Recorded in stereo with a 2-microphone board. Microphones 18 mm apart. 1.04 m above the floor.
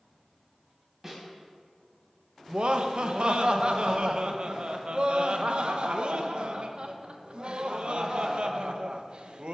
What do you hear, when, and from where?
1.0 s a snare drum: 15° right (ahead or behind), 2.5 m
2.5 s laughter: 55° right (ahead or behind), 0.8 m